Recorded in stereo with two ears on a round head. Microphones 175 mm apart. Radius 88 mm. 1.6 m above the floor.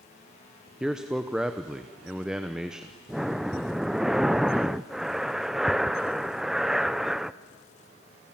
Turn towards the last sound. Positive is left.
turn(degrees=0)  # may be behind; listen again after turning